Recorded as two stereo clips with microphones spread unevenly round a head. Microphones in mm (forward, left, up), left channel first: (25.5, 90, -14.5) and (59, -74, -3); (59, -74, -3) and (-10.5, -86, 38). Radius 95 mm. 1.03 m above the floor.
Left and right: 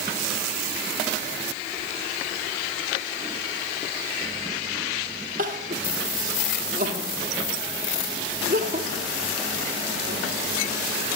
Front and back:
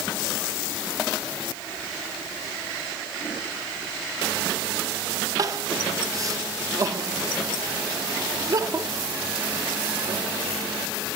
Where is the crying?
130° right, 1.6 m.